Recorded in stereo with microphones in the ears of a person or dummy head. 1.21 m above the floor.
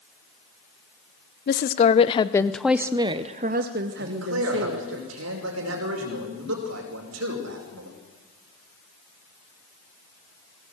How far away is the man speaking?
About 5 m.